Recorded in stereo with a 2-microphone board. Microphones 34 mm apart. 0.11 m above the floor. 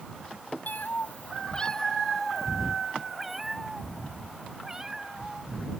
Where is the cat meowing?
65° left (ahead or behind); by 5.8 s 15° right (ahead or behind).